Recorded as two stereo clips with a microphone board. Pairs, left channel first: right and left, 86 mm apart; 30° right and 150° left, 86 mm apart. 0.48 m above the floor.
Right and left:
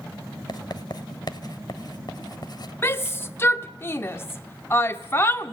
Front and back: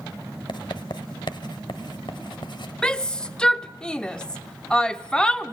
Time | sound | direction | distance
0.5 | writing | 55° right | 1.1 m
2.8 | a shout | 100° right | 0.8 m